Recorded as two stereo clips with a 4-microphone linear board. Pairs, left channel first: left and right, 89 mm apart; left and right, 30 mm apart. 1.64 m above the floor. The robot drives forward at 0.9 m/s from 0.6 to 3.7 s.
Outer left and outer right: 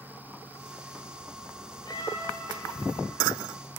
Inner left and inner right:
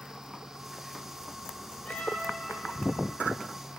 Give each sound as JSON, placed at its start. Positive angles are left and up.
{"t": 1.9, "sound": "a cat meowing", "side_deg": 55, "distance_m": 1.8}